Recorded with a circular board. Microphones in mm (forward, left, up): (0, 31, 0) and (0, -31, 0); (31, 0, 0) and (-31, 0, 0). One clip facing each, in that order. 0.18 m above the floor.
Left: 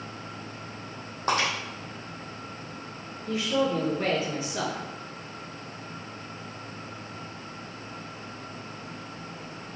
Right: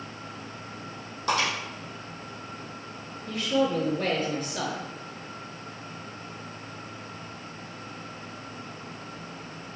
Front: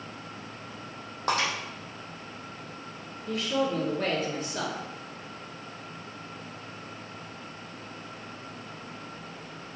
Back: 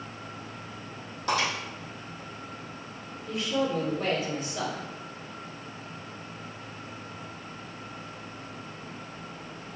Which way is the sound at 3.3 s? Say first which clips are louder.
Right 1 dB, even; 15° left.